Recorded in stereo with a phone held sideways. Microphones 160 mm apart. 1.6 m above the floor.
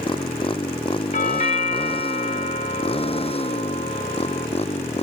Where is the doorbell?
45° left (ahead or behind).